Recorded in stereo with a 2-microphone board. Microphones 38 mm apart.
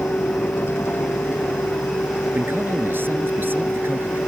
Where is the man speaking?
70° right (ahead or behind).